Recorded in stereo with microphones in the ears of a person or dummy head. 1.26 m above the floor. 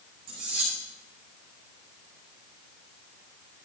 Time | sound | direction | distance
0.3 | cutlery clinking | 50° right (ahead or behind) | 7.5 m